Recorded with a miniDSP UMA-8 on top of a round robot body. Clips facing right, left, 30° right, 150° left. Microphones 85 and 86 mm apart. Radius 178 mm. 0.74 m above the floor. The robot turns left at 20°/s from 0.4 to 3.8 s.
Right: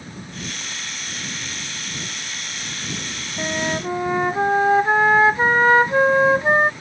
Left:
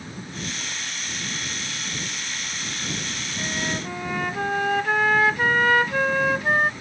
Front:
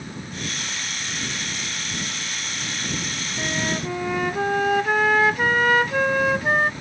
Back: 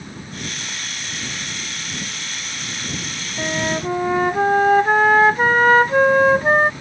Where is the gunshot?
I don't hear a gunshot.